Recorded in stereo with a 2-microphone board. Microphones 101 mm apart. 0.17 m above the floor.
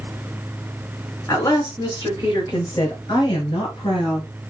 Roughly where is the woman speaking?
Left.